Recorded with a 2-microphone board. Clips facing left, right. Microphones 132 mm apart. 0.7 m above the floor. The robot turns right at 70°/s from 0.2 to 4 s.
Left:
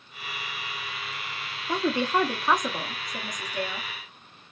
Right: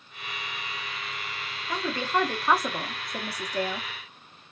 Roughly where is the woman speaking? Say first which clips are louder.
Left 3 dB; behind left.